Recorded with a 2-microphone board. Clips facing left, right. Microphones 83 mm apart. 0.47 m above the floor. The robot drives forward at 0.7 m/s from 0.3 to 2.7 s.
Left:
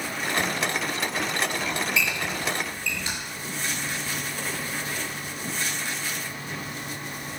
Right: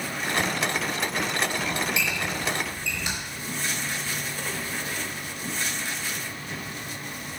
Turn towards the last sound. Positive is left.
turn(degrees=-15)  # may be behind; listen again after turning